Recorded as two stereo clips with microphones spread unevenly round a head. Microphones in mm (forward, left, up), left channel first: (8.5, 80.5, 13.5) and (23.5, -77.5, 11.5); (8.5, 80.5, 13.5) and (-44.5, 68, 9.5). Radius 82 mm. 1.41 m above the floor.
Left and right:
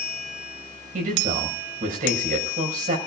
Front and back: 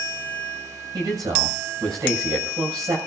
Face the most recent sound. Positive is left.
turn(degrees=-130)